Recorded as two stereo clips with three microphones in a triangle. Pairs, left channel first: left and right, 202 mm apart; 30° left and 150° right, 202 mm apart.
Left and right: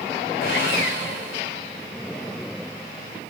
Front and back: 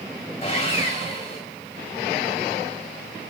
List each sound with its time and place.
0.4 s sawing: 85° left, 5.5 m